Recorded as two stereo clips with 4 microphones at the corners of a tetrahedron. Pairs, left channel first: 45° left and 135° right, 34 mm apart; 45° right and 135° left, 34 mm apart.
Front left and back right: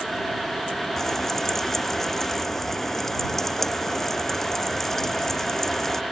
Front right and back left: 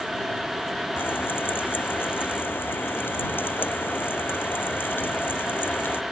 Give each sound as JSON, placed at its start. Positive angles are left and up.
{"t": 1.0, "sound": "frying", "azimuth_deg": -35}